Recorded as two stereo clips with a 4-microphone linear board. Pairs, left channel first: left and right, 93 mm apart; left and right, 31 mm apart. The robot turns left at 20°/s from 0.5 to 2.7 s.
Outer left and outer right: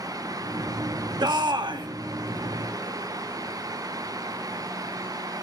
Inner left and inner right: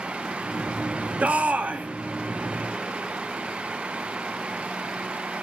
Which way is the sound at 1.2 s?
50° right (ahead or behind).